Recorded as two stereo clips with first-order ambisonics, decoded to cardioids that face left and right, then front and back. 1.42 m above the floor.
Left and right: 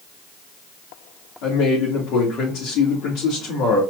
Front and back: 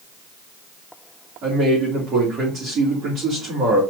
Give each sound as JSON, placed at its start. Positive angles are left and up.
{"t": 1.4, "sound": "a man speaking", "azimuth_deg": 125, "distance_m": 2.0}